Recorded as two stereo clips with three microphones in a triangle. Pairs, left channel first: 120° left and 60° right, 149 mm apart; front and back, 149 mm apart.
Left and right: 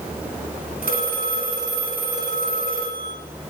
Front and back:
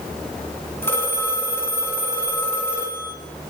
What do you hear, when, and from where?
0.8 s a phone ringing: 75° right, 3 m